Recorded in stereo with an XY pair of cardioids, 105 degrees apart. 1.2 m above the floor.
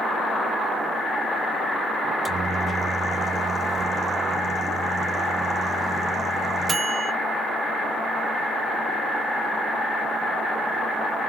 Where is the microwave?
35° right, 0.6 m.